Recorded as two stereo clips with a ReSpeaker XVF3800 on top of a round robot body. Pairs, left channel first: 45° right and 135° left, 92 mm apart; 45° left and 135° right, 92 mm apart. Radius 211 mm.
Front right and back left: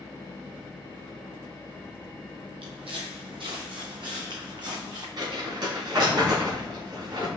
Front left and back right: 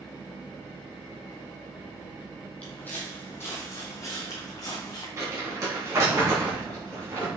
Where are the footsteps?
125° left, 1.2 m; by 5.1 s 95° left, 2 m.